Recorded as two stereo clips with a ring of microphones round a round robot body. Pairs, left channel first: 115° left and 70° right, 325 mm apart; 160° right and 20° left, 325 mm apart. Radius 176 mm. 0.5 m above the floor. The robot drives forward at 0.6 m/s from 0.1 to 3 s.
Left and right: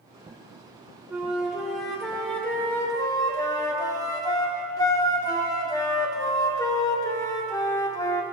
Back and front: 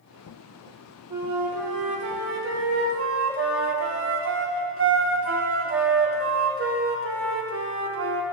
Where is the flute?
15° left, 2 m; by 8.2 s 40° left, 1.4 m.